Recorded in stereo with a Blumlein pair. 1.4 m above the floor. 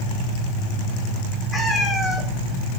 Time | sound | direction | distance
1.5 | a cat meowing | 10° left | 4 m